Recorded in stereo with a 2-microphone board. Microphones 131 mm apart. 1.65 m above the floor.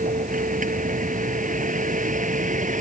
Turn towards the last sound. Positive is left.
turn(degrees=-75)  # may be behind; listen again after turning